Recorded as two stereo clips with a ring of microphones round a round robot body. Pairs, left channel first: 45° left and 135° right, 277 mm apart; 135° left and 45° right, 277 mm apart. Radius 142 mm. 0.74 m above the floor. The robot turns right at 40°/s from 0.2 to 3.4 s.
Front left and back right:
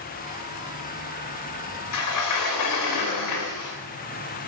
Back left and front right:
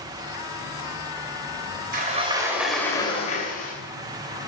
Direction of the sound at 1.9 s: 15° left.